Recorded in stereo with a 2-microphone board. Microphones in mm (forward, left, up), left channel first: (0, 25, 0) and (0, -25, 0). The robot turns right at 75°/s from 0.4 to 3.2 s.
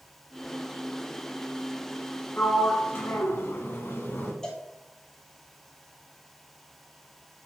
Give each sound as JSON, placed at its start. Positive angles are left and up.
{"t": 2.4, "sound": "a sliding door", "azimuth_deg": 45, "distance_m": 1.3}
{"t": 4.4, "sound": "a cowbell", "side_deg": 15, "distance_m": 1.5}